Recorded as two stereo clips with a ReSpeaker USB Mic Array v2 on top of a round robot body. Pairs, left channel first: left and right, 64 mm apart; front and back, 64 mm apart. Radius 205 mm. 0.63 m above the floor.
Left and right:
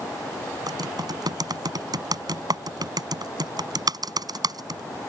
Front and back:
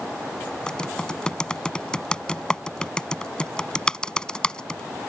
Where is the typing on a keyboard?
80° right.